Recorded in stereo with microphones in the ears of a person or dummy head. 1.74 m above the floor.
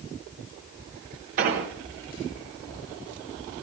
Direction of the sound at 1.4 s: 45° right (ahead or behind).